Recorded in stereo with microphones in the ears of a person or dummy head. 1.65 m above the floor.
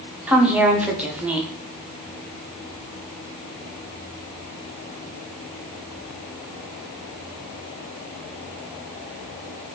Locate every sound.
0.3 s a woman speaking: 10° right (ahead or behind), 0.8 m